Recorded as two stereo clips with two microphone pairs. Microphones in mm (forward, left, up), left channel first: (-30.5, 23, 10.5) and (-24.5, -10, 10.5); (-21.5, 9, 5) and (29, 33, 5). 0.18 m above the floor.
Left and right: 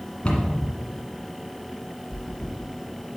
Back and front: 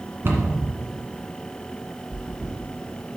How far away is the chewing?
About 4 m.